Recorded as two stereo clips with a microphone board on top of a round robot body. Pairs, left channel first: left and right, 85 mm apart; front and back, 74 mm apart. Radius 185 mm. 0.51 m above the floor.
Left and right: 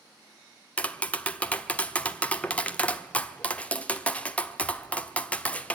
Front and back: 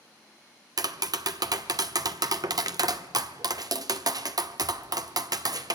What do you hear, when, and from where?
0.8 s tapping: 160° left, 1.4 m